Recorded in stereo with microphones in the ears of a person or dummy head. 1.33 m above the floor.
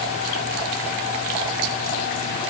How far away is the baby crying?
No baby crying in this recording.